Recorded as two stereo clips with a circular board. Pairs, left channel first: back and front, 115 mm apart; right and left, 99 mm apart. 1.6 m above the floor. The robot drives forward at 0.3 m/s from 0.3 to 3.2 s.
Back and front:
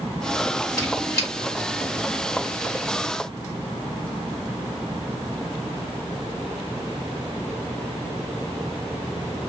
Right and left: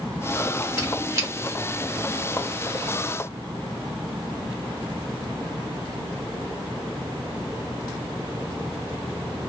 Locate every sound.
0.8 s a squeak: 135° left, 2.0 m; by 1.3 s 140° left, 2 m